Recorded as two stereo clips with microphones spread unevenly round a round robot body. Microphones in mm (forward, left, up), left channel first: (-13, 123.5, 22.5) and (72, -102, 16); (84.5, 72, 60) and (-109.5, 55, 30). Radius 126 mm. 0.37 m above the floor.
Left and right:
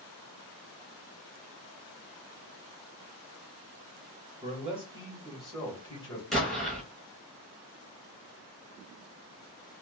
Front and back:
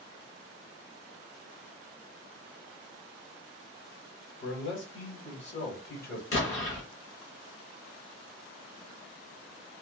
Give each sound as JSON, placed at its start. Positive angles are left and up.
{"t": 4.4, "sound": "a man speaking", "azimuth_deg": -20, "distance_m": 1.6}
{"t": 6.3, "sound": "an explosion", "azimuth_deg": 20, "distance_m": 1.9}